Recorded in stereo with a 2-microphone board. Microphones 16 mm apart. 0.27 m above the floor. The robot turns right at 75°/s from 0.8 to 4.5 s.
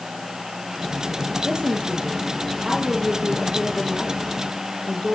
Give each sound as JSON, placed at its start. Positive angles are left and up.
{"t": 1.4, "sound": "a woman speaking", "azimuth_deg": -125, "distance_m": 7.0}